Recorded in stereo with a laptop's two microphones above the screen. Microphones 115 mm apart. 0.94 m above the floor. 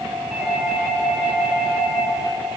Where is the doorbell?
20° right (ahead or behind), 3 m.